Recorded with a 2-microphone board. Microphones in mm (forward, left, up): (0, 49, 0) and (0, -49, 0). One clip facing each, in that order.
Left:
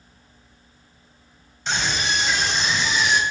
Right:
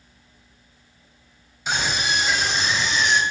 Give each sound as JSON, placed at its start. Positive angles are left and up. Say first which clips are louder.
{"t": 1.7, "sound": "a scream", "louder": "even", "side_deg": -10, "distance_m": 3.0}